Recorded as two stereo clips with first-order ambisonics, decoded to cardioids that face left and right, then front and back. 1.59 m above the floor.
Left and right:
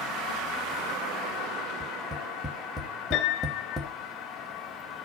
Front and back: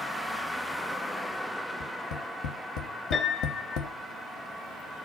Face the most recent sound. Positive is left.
turn(degrees=55)